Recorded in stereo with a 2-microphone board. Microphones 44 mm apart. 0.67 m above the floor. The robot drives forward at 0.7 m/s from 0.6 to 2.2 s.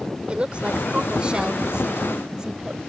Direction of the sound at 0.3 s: 25° right (ahead or behind).